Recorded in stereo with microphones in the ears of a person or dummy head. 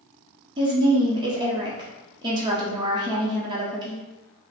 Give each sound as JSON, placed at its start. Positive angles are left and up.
{"t": 0.6, "sound": "a woman speaking", "side_deg": -20, "distance_m": 0.6}